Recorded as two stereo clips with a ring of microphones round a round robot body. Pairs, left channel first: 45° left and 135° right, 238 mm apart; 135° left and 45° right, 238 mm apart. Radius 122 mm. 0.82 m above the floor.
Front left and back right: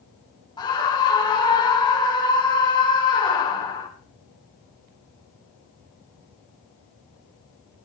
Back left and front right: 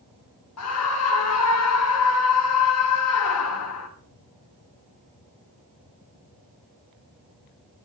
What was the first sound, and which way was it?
A scream, 115° left.